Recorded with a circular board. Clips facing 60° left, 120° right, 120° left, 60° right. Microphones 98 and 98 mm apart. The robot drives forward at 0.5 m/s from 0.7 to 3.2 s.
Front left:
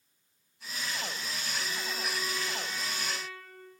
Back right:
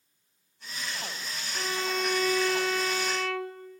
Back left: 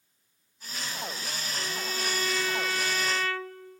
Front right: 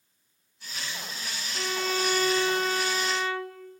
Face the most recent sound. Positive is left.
turn(degrees=-130)